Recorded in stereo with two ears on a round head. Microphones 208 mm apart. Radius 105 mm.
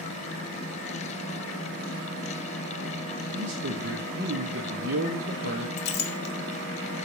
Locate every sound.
3.3 s a man speaking: 50° right (ahead or behind), 0.7 m
5.8 s a clink: 45° left (ahead or behind), 0.7 m